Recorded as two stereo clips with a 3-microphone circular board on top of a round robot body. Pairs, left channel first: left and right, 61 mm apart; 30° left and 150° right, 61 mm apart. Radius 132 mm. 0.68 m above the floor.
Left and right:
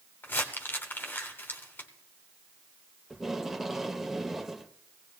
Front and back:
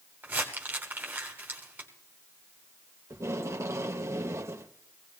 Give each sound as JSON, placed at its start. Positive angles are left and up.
{"t": 0.2, "sound": "crumpling", "azimuth_deg": 145, "distance_m": 1.0}
{"t": 3.1, "sound": "tape being pulled", "azimuth_deg": -175, "distance_m": 1.3}